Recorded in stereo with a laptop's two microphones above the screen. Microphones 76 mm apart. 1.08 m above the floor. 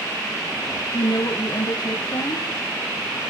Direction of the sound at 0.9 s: 65° left (ahead or behind).